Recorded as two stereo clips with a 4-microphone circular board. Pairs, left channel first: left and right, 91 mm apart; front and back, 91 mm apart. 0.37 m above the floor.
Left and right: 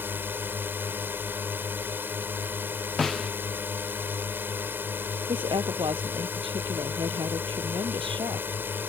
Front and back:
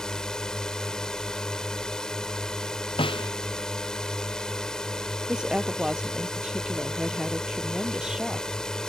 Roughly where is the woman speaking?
Right.